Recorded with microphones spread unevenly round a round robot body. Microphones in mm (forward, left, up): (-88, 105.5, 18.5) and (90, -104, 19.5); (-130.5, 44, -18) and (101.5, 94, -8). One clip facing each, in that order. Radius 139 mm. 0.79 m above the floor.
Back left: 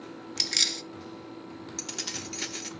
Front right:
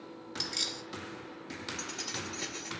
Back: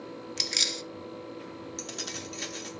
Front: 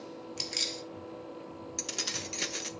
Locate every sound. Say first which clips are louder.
0.4 s keys jangling: back left 3 dB, back 2 dB; 140° left, 0.5 m
1.8 s keys jangling: back left 2 dB, back 2 dB; 70° left, 0.9 m